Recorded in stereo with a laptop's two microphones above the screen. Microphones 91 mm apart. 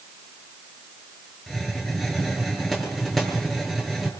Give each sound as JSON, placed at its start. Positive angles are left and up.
{"t": 1.5, "sound": "a hiss", "side_deg": 5, "distance_m": 6.5}